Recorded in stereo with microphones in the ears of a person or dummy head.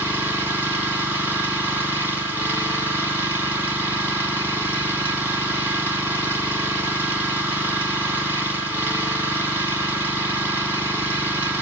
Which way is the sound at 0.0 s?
5° right (ahead or behind).